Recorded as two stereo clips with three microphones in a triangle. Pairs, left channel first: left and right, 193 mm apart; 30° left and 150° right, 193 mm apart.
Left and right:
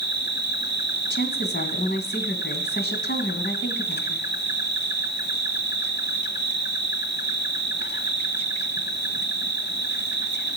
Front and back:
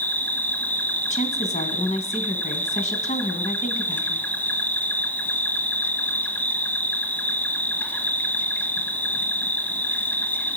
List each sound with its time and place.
0.0 s an insect: 110° left, 1.0 m
1.1 s a woman speaking: 75° left, 2.0 m